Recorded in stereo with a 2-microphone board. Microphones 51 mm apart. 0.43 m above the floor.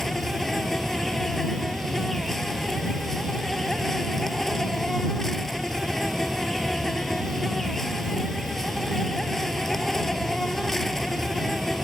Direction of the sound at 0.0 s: 10° left (ahead or behind).